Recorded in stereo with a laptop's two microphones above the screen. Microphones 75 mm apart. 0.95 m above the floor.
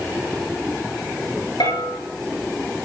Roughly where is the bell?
Left.